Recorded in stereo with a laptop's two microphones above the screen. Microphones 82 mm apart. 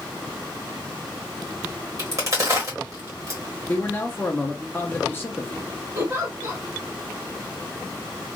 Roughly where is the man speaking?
Left.